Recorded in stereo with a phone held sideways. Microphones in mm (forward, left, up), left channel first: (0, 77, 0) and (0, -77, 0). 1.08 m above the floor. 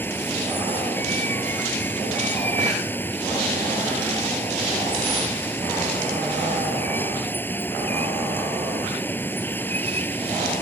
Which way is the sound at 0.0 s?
10° left (ahead or behind).